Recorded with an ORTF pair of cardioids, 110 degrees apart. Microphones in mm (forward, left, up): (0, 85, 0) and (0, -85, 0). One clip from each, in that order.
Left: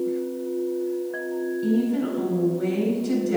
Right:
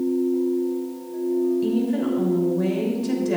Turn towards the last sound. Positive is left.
turn(degrees=-60)